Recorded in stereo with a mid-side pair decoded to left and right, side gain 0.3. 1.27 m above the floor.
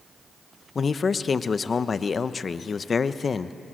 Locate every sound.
0.8 s a man speaking: 50° left, 0.9 m